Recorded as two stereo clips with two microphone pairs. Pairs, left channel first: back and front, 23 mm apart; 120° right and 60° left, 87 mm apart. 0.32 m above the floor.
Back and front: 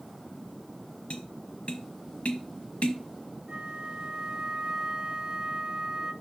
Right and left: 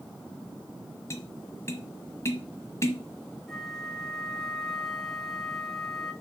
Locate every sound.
1.1 s tapping: 175° right, 1.1 m
3.5 s a flute: 30° right, 0.8 m